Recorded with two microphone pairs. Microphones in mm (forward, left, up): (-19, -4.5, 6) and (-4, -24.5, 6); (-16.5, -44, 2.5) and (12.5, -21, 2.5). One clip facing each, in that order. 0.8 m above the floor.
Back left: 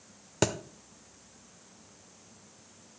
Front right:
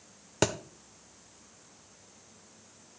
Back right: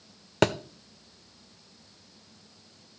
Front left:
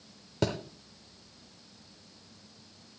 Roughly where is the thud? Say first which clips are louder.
Even, back right 7 dB; behind right.